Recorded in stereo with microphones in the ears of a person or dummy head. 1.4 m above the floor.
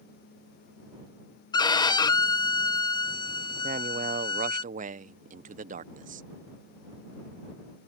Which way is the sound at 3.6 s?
40° right (ahead or behind).